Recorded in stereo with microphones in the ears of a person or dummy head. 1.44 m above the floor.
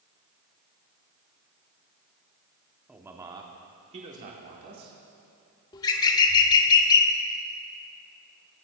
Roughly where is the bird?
Centre.